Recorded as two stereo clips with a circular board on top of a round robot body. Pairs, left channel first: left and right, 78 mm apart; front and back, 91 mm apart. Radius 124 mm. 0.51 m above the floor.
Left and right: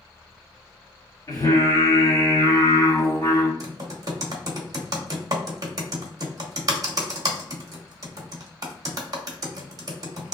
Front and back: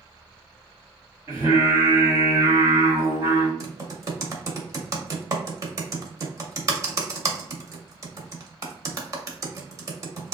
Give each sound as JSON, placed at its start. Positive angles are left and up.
{"t": 1.3, "sound": "singing", "azimuth_deg": 125, "distance_m": 1.9}
{"t": 3.6, "sound": "typing on a keyboard", "azimuth_deg": -130, "distance_m": 0.9}